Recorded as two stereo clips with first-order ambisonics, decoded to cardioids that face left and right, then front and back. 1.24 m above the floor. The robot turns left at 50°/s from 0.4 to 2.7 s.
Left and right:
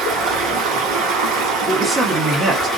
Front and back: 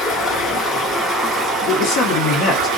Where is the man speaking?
Straight ahead, 0.9 m; by 2.7 s 50° right, 0.9 m.